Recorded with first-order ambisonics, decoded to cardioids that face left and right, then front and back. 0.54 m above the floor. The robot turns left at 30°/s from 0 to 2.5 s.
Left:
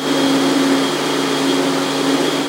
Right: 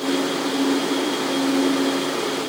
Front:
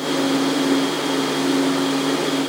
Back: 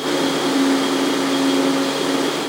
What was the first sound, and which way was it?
Only background noise.